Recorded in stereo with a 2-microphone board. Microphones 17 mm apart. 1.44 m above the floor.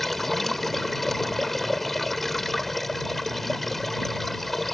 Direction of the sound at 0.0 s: 15° left (ahead or behind).